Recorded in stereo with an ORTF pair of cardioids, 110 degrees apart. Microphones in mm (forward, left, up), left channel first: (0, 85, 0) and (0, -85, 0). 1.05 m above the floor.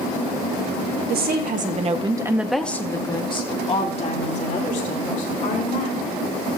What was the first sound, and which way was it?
A woman speaking, 70° right.